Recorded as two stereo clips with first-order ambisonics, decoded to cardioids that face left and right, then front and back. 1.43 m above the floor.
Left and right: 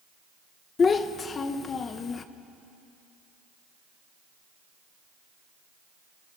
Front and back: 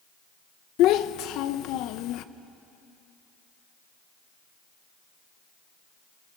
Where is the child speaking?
25° left, 0.7 m.